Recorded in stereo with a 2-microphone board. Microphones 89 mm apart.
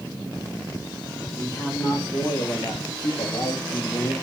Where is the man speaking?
30° left (ahead or behind), 1.7 m; by 4.1 s 60° left (ahead or behind), 0.9 m.